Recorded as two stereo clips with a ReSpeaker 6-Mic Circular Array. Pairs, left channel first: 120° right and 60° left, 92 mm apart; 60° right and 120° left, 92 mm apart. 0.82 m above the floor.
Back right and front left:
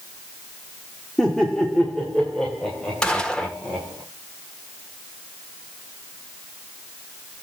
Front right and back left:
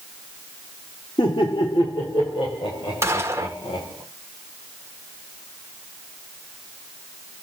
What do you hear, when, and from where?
1.2 s laughter: 35° right, 1.6 m
3.0 s a gunshot: 160° left, 1.2 m